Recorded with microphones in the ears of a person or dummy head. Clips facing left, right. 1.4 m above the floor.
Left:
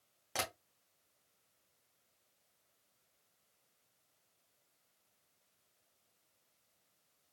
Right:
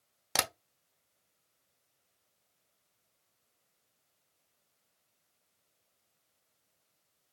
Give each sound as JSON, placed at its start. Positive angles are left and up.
{"t": 0.3, "sound": "tapping", "side_deg": -70, "distance_m": 0.7}